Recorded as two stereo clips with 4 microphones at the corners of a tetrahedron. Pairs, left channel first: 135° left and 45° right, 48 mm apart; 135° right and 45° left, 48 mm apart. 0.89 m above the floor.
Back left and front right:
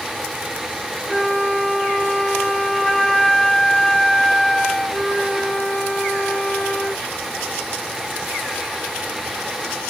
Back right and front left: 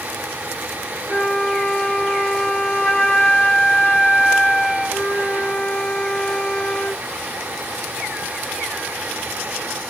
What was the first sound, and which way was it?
A flute, 160° left.